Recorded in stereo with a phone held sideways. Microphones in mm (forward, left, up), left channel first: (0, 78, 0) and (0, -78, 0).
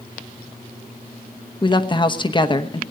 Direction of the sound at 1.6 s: 30° left (ahead or behind).